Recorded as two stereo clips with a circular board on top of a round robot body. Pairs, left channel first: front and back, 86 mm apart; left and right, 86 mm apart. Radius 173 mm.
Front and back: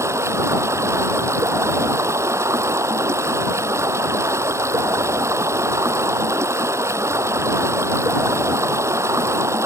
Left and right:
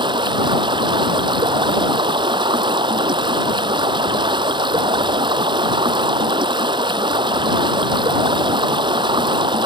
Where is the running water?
120° right.